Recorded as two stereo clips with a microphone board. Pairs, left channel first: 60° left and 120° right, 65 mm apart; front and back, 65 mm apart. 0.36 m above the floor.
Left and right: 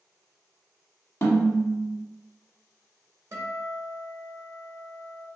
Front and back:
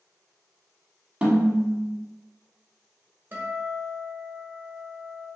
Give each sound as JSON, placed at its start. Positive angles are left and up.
{"t": 1.2, "sound": "a snare drum", "azimuth_deg": 105, "distance_m": 0.9}
{"t": 3.3, "sound": "a guitar", "azimuth_deg": -135, "distance_m": 0.9}